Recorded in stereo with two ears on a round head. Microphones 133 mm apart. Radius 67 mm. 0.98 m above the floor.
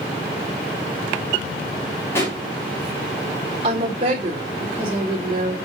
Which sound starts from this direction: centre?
A pop, at 2.1 s.